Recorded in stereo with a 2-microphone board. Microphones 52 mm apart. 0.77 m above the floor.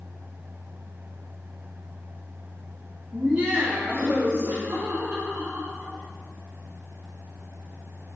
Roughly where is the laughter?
Right.